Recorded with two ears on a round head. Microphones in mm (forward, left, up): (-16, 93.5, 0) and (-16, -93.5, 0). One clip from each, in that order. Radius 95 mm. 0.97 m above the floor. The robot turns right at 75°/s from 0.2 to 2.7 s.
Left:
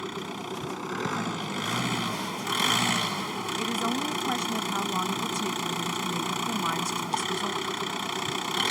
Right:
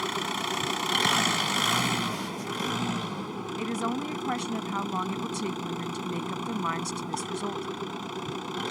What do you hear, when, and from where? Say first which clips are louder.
0.0 s an engine running: right 5 dB; 140° right; by 8.7 s 50° left
3.6 s a woman speaking: left 2 dB; centre (ahead or behind)